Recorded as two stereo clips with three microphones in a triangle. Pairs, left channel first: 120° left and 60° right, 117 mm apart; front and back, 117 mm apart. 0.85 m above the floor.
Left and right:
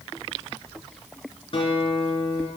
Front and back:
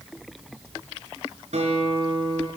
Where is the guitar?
160° left, 2.5 m.